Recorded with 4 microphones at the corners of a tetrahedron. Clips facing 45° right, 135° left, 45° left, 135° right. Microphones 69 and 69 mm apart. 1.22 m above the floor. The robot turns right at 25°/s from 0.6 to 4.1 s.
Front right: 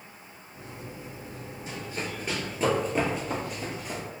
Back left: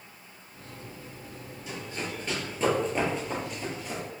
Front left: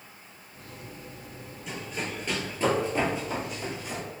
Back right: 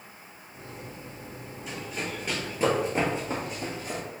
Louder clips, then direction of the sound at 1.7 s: Even, even; 50° right.